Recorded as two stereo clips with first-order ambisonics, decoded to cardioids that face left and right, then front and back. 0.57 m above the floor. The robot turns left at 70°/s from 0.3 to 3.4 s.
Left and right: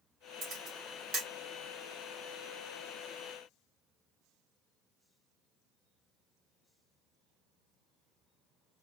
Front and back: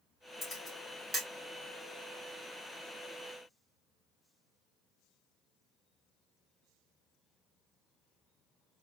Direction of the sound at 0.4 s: 65° right.